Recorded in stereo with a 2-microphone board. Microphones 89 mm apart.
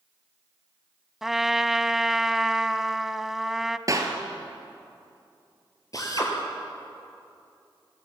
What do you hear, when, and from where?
1.2 s a trumpet: 5° right (ahead or behind), 0.6 m
3.9 s a clap: 40° right (ahead or behind), 2.5 m
5.9 s a drill: 40° left (ahead or behind), 4 m